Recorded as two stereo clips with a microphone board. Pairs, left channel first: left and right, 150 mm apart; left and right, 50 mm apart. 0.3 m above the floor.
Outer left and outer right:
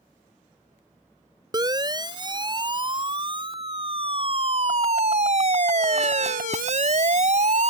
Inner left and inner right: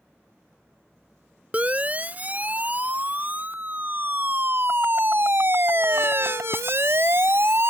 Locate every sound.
1.5 s a siren: 30° right (ahead or behind); by 7.7 s 55° right (ahead or behind)